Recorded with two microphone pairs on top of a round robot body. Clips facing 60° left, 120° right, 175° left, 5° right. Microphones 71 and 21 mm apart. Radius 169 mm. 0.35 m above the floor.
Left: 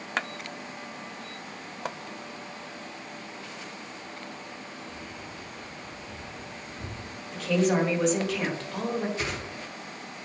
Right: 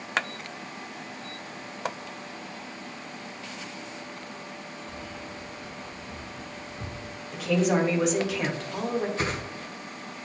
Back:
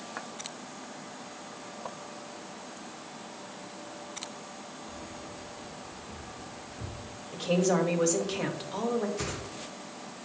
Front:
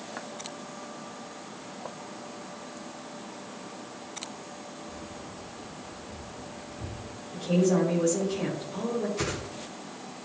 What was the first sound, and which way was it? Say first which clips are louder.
Keys jangling: right 2 dB, front 1 dB; 160° right.